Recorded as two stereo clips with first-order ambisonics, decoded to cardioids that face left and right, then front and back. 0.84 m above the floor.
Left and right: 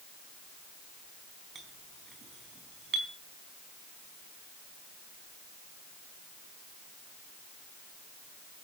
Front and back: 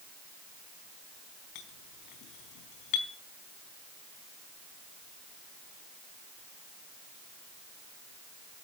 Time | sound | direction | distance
1.6 | a clink | 25° right | 4 m